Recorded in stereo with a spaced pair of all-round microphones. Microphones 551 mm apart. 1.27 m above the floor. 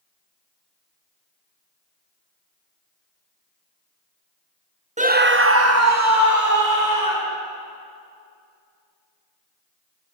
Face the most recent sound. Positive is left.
turn(degrees=-35)  # may be behind; listen again after turning